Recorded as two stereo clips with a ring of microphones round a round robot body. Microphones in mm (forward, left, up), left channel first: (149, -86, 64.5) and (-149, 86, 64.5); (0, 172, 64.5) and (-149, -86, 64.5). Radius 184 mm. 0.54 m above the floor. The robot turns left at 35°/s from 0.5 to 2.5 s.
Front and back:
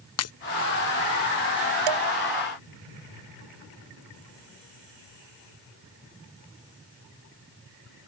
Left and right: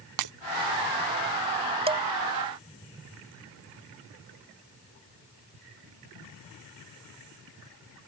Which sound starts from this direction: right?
Breaking glass, at 0.2 s.